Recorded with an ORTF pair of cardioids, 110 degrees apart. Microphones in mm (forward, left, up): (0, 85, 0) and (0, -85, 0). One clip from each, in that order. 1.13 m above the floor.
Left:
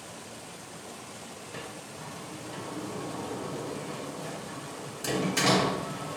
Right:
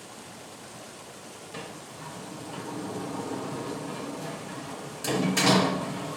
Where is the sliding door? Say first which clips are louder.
Right 2 dB; 10° right, 2.5 m.